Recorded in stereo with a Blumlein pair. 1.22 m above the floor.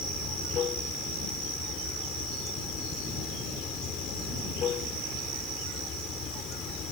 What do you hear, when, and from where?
0.0 s running water: 30° left